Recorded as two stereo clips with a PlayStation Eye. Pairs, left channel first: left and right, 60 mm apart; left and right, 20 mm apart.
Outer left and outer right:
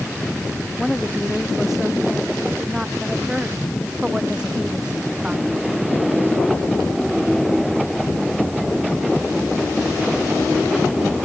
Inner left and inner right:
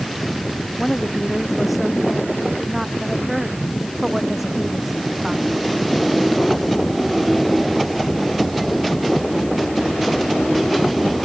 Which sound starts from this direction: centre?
A woman speaking, at 0.8 s.